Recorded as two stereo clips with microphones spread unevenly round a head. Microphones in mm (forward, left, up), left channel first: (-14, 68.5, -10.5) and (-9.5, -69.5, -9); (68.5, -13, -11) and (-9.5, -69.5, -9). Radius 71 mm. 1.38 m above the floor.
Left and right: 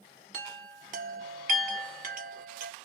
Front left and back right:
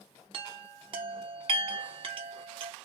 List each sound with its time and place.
0.3 s a chime: 120° right, 0.7 m